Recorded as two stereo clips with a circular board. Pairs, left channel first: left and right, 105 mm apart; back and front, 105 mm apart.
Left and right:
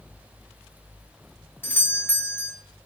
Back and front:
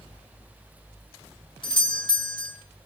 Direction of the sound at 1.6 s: 155° left.